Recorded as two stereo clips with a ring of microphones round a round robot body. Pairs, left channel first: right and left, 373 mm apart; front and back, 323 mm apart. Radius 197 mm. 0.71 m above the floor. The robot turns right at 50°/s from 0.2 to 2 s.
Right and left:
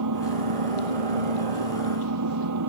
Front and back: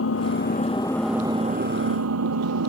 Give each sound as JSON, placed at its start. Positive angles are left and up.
{"t": 0.0, "sound": "an engine running", "azimuth_deg": 45}